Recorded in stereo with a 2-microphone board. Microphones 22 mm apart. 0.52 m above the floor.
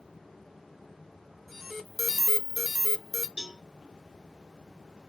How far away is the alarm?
About 0.7 m.